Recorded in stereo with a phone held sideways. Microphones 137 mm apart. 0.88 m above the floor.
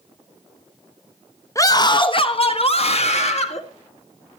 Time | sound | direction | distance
1.6 | a scream | 25° left (ahead or behind) | 0.9 m